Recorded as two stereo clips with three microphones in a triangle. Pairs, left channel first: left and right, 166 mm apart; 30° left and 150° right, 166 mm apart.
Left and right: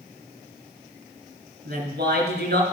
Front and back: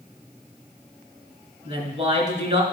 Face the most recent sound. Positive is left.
turn(degrees=-100)